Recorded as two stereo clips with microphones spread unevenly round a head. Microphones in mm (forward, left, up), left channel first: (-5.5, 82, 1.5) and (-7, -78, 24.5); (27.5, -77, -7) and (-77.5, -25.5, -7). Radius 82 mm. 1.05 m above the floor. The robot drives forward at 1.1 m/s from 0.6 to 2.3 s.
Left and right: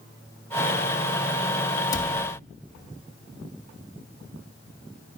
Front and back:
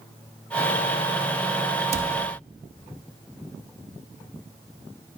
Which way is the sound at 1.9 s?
155° left.